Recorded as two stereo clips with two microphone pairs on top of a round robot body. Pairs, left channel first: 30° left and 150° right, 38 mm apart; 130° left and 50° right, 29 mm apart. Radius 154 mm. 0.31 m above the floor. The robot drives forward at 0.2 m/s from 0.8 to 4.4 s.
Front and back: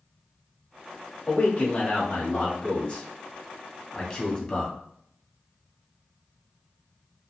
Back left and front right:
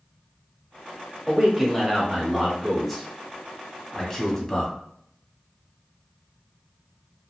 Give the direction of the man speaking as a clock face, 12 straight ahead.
10 o'clock.